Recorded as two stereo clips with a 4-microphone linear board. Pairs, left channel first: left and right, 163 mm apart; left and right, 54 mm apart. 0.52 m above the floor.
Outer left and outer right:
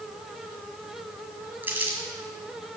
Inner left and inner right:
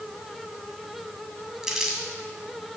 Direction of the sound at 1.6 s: 10° right (ahead or behind).